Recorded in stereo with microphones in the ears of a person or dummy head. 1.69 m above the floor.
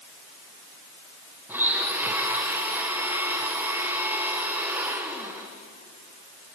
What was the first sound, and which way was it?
A blender, 15° right (ahead or behind).